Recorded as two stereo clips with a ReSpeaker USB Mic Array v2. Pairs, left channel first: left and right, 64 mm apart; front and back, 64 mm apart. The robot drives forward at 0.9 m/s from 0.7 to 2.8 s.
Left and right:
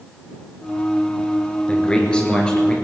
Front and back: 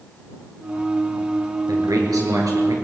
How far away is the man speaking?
About 3.5 m.